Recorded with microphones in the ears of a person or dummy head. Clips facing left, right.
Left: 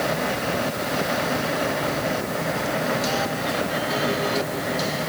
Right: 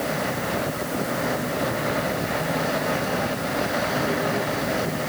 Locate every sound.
Only background noise.